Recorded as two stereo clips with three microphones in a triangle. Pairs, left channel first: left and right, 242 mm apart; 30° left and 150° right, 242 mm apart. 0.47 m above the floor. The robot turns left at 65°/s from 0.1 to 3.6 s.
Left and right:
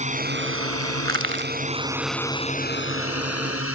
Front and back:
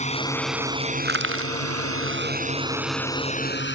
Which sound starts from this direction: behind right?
Crushing, at 1.1 s.